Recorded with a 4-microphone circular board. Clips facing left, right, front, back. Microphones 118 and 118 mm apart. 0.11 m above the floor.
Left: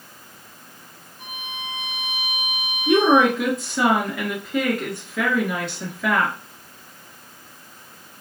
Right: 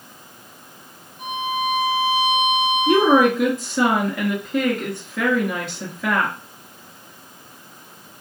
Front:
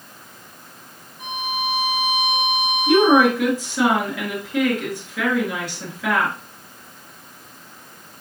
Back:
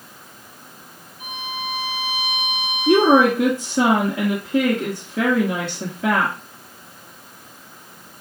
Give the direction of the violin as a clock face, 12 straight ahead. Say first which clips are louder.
Right 13 dB, front 4 dB; 12 o'clock.